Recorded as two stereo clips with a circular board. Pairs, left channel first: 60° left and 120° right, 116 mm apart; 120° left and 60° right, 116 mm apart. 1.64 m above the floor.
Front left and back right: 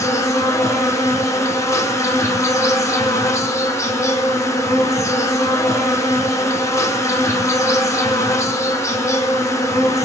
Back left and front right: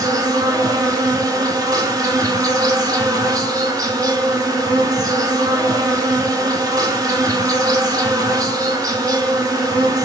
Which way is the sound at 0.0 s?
5° right.